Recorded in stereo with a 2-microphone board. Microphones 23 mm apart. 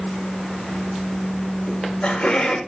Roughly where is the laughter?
Left.